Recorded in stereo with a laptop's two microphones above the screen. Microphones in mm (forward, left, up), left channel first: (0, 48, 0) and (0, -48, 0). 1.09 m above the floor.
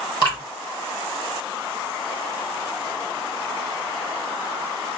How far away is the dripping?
About 1.3 m.